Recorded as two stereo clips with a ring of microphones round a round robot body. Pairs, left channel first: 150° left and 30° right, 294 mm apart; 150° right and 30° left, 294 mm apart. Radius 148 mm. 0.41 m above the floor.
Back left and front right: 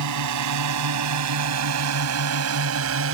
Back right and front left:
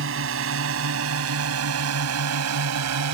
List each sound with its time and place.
0.0 s a drone: 15° right; by 3.1 s 10° left